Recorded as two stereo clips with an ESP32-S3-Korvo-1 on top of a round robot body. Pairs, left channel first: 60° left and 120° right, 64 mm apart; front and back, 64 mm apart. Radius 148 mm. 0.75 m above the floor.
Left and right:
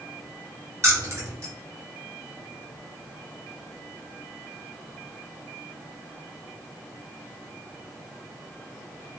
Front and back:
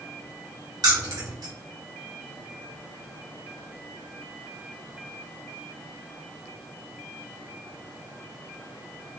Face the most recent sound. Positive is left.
turn(degrees=-170)